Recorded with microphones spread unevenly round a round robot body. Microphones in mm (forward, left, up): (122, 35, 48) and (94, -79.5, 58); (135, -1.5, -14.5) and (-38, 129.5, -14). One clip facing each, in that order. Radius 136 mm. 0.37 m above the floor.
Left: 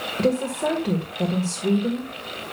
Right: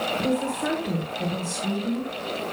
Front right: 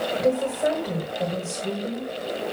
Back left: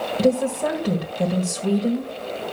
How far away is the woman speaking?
About 1.9 m.